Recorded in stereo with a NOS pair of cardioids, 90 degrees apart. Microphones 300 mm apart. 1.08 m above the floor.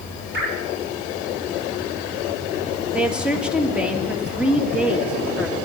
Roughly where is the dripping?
Ahead right.